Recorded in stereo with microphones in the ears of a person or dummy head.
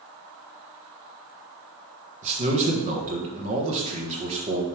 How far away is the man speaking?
About 1.2 m.